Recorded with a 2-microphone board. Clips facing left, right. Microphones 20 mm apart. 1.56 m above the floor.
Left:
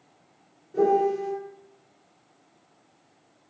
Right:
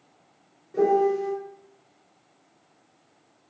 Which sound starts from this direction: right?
A piano, at 0.7 s.